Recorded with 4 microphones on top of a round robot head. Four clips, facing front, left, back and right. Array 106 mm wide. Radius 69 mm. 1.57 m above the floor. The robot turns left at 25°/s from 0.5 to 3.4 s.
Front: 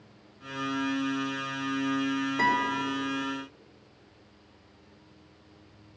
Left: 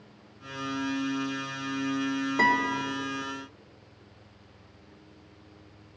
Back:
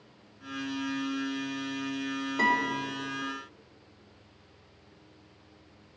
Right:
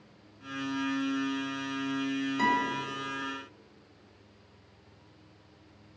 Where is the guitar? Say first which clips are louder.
Left 4 dB, even; 95° left, 3 m; by 2.8 s 80° left, 3 m.